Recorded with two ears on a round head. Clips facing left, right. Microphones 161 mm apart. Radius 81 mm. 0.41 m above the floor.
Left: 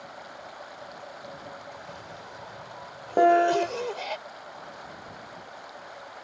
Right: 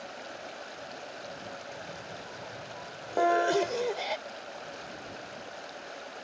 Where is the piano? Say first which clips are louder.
Left 6 dB; 40° left (ahead or behind).